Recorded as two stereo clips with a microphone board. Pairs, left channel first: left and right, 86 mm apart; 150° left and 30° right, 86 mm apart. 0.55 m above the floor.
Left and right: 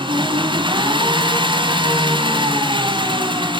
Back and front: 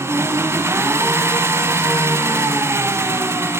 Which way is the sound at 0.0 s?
85° right.